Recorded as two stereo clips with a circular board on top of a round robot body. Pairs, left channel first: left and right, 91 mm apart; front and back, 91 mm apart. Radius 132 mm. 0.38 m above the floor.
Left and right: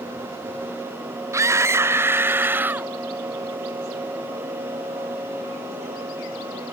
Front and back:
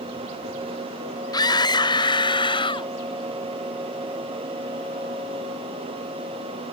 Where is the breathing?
No breathing in this recording.